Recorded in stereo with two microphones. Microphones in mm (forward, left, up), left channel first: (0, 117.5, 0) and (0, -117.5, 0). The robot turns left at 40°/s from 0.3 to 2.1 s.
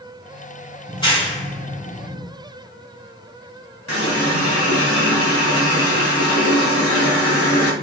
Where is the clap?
15° left (ahead or behind), 1.6 m; by 2.3 s 50° left (ahead or behind), 1.6 m.